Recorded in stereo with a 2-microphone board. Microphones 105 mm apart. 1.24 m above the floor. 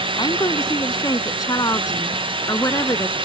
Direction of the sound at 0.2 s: 45° left (ahead or behind).